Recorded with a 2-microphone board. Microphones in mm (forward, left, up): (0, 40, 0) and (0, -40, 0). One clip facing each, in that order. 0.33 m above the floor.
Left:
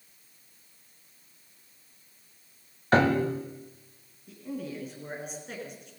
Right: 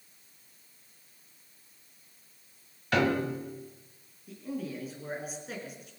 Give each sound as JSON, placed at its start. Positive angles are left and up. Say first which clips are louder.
{"t": 2.9, "sound": "a piano", "louder": "left 4 dB", "side_deg": 35, "distance_m": 1.5}
{"t": 4.3, "sound": "a man speaking", "louder": "even", "side_deg": 0, "distance_m": 4.0}